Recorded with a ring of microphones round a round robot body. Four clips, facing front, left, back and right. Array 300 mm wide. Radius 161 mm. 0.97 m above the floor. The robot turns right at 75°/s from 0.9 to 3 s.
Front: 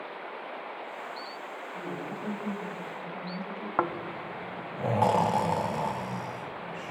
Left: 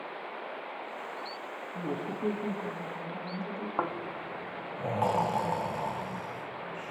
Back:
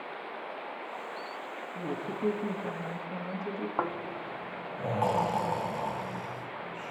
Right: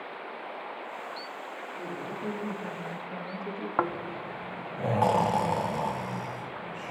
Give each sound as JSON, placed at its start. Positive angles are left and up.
{"t": 1.8, "sound": "a woman speaking", "azimuth_deg": 115, "distance_m": 2.0}
{"t": 3.8, "sound": "snoring", "azimuth_deg": -45, "distance_m": 0.8}